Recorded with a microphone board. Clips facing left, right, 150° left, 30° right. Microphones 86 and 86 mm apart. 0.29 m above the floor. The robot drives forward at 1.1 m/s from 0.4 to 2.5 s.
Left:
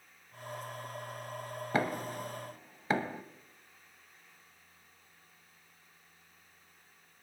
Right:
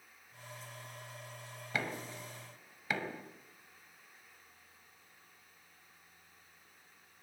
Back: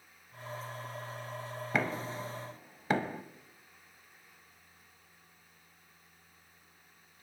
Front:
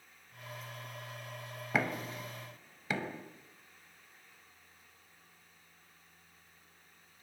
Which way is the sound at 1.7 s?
55° left.